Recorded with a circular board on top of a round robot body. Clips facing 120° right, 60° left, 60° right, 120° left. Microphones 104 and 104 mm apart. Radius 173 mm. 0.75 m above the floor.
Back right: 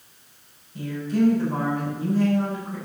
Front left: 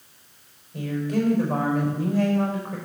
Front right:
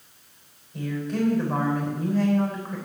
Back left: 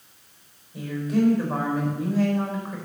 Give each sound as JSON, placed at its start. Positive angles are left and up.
{"t": 0.7, "sound": "a woman speaking", "azimuth_deg": 35, "distance_m": 5.0}